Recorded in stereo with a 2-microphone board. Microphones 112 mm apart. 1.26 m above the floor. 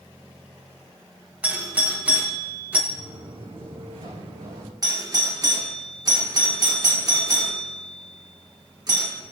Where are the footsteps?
50° right (ahead or behind), 3.5 m; by 4.7 s 65° right (ahead or behind), 4 m.